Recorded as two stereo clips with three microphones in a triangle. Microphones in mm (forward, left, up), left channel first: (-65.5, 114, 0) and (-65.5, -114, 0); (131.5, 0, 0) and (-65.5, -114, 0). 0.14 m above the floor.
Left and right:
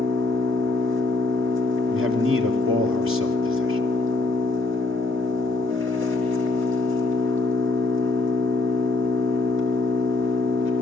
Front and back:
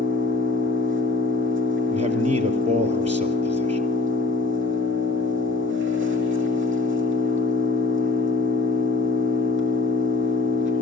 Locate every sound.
0.0 s an engine running: 120° right, 4 m
1.9 s a man speaking: 90° right, 3.5 m